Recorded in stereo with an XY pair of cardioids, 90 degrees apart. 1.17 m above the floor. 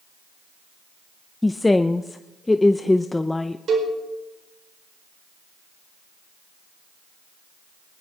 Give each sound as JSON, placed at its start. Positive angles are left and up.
{"t": 1.4, "sound": "a woman speaking", "azimuth_deg": 15, "distance_m": 0.6}
{"t": 3.7, "sound": "a cowbell", "azimuth_deg": -60, "distance_m": 4.5}